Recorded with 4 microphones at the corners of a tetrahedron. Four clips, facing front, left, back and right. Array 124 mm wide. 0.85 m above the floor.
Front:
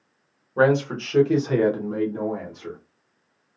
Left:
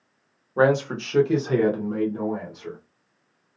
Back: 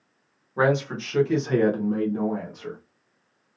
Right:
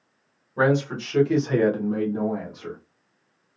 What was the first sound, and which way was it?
A man speaking, 60° left.